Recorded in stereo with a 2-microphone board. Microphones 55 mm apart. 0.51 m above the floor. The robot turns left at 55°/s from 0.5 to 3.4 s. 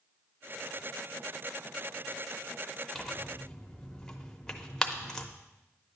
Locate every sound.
3.0 s tearing paper: centre (ahead or behind), 0.7 m; by 5.3 s 10° left (ahead or behind), 0.7 m